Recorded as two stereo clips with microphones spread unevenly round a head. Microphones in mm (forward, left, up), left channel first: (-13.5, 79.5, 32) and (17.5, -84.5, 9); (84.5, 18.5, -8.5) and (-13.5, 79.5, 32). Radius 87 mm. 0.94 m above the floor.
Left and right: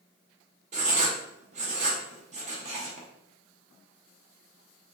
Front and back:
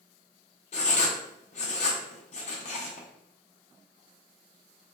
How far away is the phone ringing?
I don't hear a phone ringing.